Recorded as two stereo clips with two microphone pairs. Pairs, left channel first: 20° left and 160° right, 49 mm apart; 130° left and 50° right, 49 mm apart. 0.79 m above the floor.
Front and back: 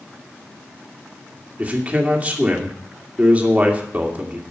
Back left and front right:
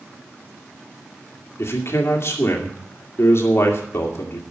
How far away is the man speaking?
About 2 m.